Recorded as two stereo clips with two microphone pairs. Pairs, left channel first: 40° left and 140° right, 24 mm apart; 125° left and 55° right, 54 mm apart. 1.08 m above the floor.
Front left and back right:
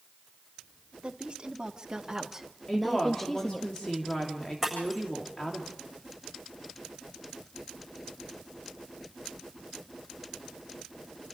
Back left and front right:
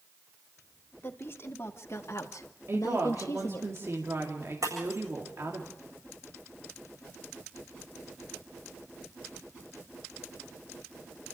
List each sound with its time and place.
1.0 s a woman speaking: 170° left, 2 m; by 3.7 s 90° left, 1.1 m
2.7 s a woman speaking: 20° right, 2.5 m
4.6 s breaking glass: 60° right, 7.5 m